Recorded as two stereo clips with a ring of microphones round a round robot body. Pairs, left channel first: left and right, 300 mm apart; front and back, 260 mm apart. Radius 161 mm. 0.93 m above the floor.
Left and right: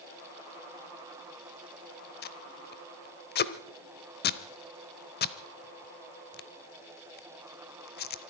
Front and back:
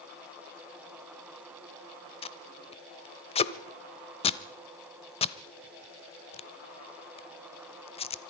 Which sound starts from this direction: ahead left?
Tape being pulled, at 2.2 s.